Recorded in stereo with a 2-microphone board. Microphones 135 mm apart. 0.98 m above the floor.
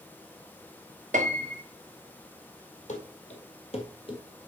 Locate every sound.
1.1 s a piano: 65° right (ahead or behind), 1.1 m
2.9 s running footsteps: 60° left (ahead or behind), 2 m; by 4.2 s 35° left (ahead or behind), 1.6 m